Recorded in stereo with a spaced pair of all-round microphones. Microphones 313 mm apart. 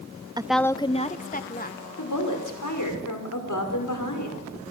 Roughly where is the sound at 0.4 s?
Centre.